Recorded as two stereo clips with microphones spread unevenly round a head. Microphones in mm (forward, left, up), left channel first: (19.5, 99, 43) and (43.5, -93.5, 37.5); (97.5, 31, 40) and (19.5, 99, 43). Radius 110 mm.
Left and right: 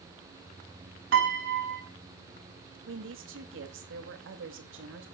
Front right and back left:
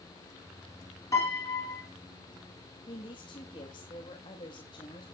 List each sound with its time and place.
1.1 s a piano: 110° right, 3.5 m
2.9 s a woman speaking: 90° right, 2 m